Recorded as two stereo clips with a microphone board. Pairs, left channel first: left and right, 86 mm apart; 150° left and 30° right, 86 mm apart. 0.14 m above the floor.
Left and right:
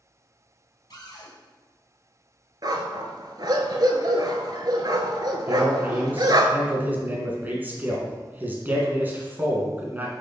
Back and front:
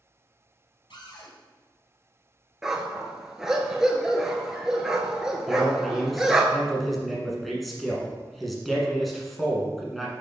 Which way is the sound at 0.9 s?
125° left.